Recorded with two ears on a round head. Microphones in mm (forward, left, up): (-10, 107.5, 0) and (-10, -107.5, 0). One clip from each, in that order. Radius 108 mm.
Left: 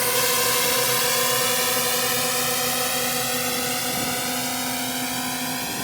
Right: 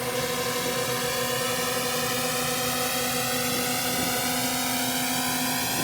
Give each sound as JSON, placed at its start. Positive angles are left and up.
{"t": 0.0, "sound": "a drone", "side_deg": 40}